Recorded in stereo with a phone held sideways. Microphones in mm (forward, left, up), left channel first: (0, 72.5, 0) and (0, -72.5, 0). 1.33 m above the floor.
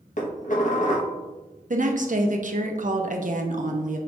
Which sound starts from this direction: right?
A woman speaking, at 1.7 s.